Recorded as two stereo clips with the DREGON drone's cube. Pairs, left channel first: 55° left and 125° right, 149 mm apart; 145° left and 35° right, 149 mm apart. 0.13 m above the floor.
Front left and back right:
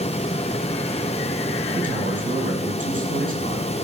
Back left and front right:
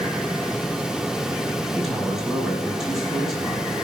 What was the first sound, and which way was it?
A man speaking, 125° right.